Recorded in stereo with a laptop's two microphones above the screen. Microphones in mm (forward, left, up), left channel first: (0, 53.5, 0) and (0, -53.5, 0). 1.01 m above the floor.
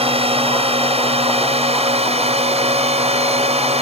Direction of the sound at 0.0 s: 65° right (ahead or behind).